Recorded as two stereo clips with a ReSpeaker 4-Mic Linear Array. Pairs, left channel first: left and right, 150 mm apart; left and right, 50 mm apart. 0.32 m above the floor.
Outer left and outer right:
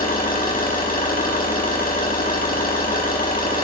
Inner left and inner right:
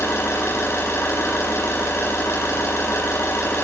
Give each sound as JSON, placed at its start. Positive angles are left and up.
{"t": 0.0, "sound": "an engine running", "side_deg": 70, "distance_m": 6.5}